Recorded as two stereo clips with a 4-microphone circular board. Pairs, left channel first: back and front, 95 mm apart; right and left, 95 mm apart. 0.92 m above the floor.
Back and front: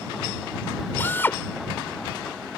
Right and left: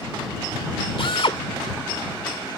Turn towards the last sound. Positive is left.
turn(degrees=-110)